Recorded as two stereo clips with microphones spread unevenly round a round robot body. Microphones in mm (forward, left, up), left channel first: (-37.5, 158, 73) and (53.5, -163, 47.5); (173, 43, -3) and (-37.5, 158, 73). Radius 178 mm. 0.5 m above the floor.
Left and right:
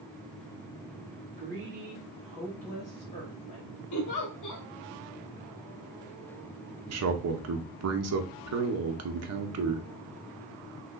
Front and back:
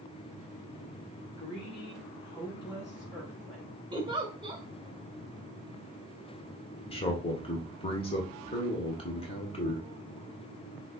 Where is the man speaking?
70° right, 1.0 m.